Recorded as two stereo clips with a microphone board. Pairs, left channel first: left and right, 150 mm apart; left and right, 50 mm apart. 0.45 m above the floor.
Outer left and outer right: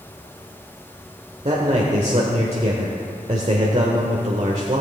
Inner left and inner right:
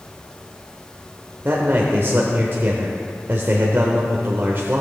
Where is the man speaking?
45° right (ahead or behind), 1.2 m.